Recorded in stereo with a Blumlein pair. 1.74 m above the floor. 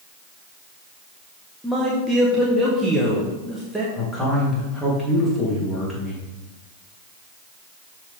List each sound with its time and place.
1.6 s a man speaking: 5° right, 1.6 m
4.0 s a man speaking: 10° left, 3.5 m